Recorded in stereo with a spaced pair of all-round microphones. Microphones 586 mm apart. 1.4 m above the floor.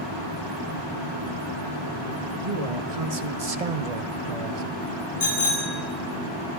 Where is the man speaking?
65° right (ahead or behind), 1.9 m; by 4.6 s 50° right (ahead or behind), 0.8 m.